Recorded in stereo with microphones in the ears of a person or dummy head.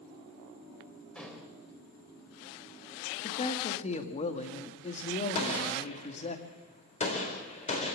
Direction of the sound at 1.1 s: 15° left (ahead or behind).